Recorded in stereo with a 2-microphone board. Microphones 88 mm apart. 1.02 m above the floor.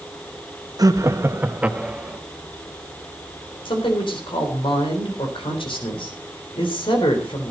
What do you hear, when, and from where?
0.8 s laughter: 45° right (ahead or behind), 1.2 m; by 2.2 s 5° right (ahead or behind), 2 m
3.6 s a man speaking: 75° left (ahead or behind), 3.5 m